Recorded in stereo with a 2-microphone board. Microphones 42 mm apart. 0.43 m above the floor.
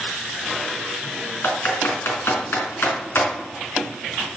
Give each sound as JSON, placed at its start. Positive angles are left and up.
{"t": 1.4, "sound": "typing on a keyboard", "side_deg": 65, "distance_m": 3.5}